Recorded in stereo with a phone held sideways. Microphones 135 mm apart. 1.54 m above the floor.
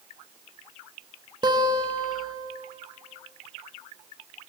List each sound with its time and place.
1.4 s a guitar: 30° right (ahead or behind), 0.9 m